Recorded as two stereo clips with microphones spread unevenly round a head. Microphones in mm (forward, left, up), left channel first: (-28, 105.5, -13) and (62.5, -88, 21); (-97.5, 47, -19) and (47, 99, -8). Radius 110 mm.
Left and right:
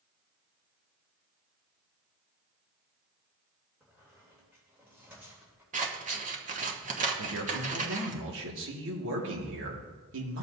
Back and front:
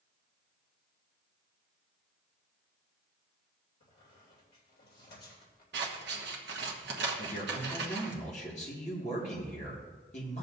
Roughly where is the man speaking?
Right.